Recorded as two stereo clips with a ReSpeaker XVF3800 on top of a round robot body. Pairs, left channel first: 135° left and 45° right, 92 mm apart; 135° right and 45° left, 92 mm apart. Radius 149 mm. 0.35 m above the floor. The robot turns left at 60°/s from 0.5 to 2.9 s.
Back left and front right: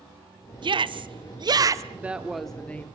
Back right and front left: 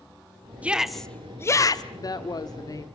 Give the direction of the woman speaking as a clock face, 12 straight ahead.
4 o'clock.